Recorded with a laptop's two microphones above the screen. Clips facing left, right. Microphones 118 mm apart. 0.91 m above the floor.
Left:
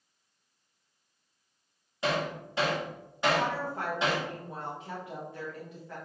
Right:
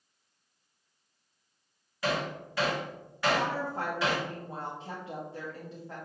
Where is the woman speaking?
30° right (ahead or behind), 0.8 m.